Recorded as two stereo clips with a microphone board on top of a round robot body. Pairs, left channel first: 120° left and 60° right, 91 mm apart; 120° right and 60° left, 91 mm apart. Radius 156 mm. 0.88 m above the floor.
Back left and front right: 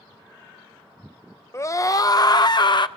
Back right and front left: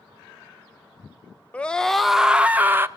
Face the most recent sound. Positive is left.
turn(degrees=120)